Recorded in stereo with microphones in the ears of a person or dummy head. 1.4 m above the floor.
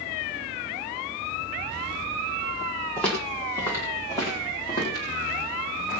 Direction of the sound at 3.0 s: 5° left (ahead or behind).